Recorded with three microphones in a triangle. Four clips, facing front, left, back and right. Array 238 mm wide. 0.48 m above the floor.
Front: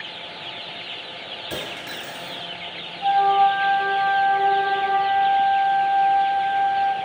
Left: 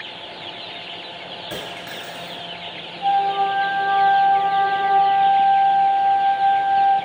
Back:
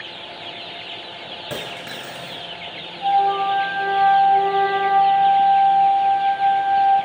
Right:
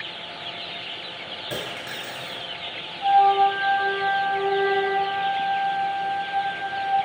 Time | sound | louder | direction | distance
1.5 | a dropped coin | right 1 dB, back 1 dB | straight behind | 0.9 m
3.0 | a flute | right 2 dB, front 1 dB | 165° left | 0.8 m